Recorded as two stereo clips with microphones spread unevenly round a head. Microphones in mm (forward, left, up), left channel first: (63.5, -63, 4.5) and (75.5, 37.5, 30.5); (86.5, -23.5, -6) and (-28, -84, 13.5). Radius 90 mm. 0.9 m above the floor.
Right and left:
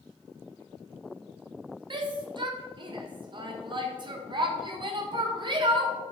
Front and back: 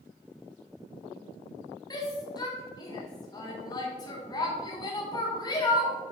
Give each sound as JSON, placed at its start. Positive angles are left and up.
{"t": 1.9, "sound": "a shout", "azimuth_deg": 55, "distance_m": 1.0}